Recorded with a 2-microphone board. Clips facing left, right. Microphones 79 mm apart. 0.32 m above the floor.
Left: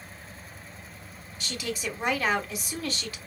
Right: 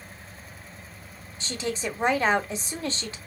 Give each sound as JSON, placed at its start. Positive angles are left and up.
{"t": 1.4, "sound": "a woman speaking", "side_deg": -30, "distance_m": 1.1}